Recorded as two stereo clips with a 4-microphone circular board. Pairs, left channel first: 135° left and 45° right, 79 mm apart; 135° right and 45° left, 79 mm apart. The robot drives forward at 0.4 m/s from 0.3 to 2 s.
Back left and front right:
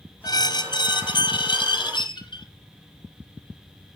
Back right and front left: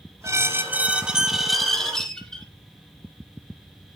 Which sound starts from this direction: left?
A squeak, at 0.2 s.